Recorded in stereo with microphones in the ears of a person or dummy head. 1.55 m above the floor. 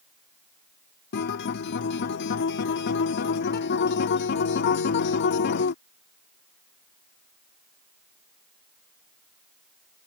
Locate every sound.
1.1 s a guitar: 50° left (ahead or behind)